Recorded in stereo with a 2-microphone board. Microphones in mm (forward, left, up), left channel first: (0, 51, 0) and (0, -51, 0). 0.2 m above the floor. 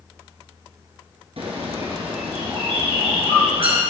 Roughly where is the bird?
Right.